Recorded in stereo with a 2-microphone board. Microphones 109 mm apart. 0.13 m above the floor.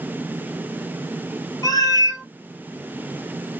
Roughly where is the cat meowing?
Left.